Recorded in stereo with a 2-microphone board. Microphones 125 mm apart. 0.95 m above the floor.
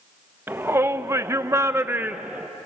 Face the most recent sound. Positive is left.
turn(degrees=-10)  # may be behind; listen again after turning